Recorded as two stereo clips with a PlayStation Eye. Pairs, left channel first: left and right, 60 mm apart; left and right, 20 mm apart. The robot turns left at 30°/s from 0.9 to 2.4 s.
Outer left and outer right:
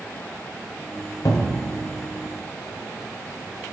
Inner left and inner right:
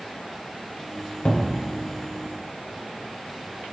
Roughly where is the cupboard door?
Left.